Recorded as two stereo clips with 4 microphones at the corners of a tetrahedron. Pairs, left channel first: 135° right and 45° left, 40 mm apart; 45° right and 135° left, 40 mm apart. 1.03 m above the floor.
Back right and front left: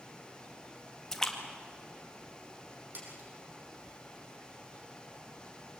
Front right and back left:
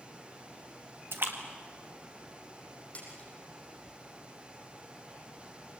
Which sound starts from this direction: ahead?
A splash, at 2.9 s.